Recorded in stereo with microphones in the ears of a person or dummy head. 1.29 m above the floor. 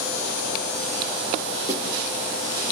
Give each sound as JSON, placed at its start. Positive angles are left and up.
{"t": 1.7, "sound": "a snare drum", "side_deg": -15, "distance_m": 6.0}